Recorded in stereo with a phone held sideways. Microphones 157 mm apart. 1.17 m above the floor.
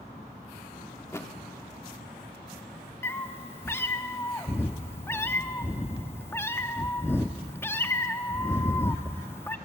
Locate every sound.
1.0 s a thud: 15° left (ahead or behind), 1.2 m
3.0 s a cat meowing: 15° left (ahead or behind), 0.7 m